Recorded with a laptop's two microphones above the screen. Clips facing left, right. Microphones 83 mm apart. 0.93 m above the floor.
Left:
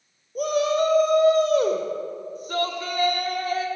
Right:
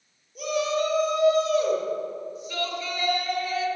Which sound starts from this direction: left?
A shout, at 0.3 s.